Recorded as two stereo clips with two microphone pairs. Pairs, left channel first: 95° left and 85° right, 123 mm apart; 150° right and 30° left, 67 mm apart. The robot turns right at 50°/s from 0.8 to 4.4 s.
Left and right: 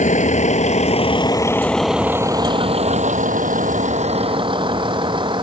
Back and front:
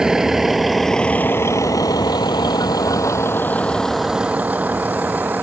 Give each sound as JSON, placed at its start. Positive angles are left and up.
{"t": 0.0, "sound": "a vehicle", "azimuth_deg": 110}